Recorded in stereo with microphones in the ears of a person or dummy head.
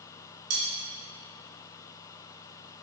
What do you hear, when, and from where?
0.5 s cutlery clinking: 75° right (ahead or behind), 2.0 m